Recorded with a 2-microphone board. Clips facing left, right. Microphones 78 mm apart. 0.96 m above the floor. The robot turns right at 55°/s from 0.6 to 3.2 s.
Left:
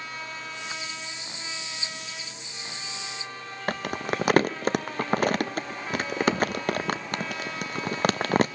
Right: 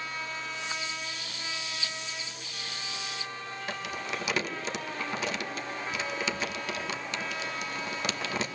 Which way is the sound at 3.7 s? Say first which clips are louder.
Left 8 dB; 50° left (ahead or behind).